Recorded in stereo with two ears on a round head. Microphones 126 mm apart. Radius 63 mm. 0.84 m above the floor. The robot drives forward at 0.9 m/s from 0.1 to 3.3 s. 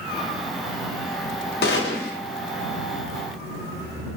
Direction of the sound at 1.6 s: 80° left.